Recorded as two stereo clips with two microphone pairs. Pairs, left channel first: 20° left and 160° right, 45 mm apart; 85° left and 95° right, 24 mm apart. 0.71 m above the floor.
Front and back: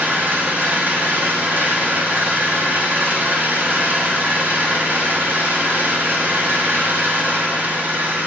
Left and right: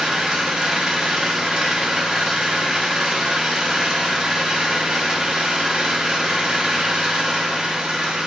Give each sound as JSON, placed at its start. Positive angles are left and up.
{"t": 0.0, "sound": "an engine running", "azimuth_deg": -135, "distance_m": 0.9}